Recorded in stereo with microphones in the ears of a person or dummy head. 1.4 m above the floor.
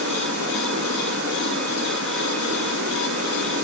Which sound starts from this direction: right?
Running water, at 0.0 s.